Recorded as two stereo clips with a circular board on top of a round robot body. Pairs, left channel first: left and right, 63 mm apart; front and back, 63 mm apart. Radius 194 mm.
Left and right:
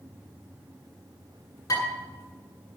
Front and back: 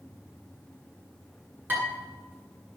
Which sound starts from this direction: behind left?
Dishes clattering, at 1.7 s.